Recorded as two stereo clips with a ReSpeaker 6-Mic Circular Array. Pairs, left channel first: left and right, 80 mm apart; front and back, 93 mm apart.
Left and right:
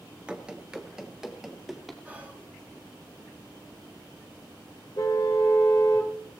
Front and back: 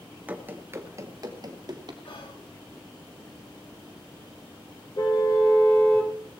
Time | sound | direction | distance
0.3 | running footsteps | 145° right | 1.1 m
2.0 | whispering | 20° right | 3 m
5.0 | a car horn | 45° left | 3 m